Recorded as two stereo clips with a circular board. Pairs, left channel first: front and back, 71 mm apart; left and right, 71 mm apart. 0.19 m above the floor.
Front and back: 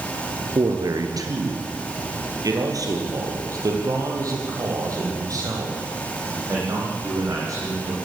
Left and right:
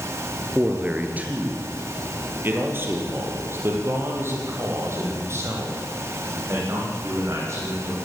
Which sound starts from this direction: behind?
A man speaking, at 0.6 s.